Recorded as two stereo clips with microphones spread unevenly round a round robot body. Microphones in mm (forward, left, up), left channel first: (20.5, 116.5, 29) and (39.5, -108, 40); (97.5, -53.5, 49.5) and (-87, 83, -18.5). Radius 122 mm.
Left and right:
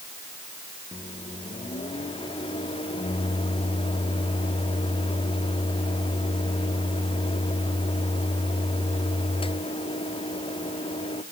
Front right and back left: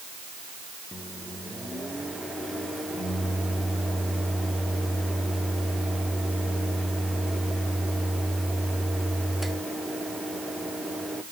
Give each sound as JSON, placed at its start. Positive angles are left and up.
{"t": 0.9, "sound": "a microwave", "azimuth_deg": 95, "distance_m": 0.9}